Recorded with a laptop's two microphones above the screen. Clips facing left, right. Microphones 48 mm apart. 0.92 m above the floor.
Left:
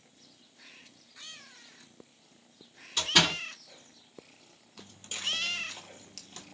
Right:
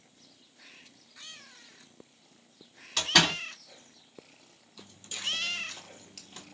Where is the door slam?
75° right (ahead or behind), 1.2 m.